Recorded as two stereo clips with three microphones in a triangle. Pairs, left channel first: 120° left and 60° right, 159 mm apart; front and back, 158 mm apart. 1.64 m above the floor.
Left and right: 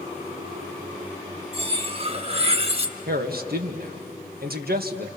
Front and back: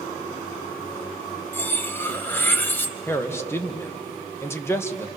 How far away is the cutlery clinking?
About 1.1 m.